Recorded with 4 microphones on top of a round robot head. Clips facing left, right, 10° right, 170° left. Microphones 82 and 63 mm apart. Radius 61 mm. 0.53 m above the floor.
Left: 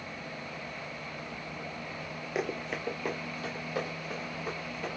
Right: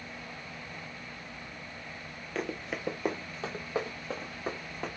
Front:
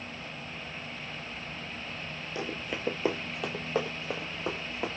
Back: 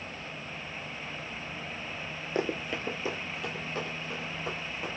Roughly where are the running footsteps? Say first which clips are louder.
Left 2 dB, back 5 dB; behind.